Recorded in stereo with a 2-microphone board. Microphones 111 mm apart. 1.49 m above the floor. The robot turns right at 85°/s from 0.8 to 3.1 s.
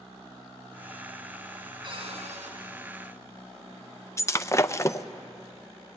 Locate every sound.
1.8 s a cupboard door: 140° right, 4.5 m; by 2.5 s 80° right, 4.5 m
4.2 s breaking glass: 25° left (ahead or behind), 0.6 m